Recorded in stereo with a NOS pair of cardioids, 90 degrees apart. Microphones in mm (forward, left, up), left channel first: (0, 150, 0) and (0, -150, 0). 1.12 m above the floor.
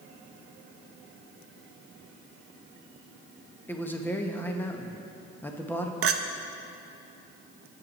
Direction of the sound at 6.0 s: 50° right.